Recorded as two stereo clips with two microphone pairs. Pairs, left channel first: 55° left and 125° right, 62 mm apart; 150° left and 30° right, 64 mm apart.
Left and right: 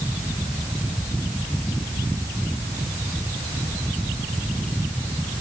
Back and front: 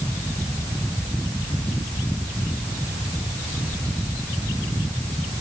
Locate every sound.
Only background noise.